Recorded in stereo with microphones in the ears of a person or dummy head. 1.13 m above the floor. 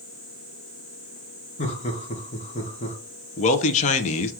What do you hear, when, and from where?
1.6 s laughter: 30° left (ahead or behind), 0.8 m
3.4 s a man speaking: 35° left (ahead or behind), 0.5 m